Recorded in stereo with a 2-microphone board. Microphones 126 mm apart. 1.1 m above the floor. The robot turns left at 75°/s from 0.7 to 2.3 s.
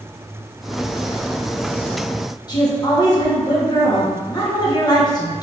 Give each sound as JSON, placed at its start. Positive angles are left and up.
{"t": 2.5, "sound": "a woman speaking", "side_deg": 35, "distance_m": 1.1}